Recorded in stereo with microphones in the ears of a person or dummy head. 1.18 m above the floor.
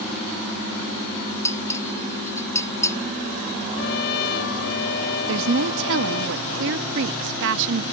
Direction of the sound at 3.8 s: 60° left (ahead or behind).